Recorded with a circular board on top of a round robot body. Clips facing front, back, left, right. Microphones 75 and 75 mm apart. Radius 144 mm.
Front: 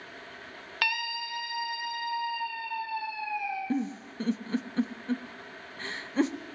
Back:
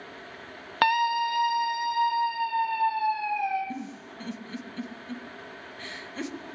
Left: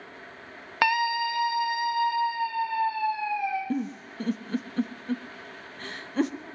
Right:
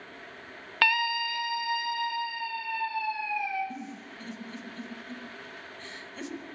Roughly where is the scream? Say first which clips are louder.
Back 11 dB, left 3 dB; behind.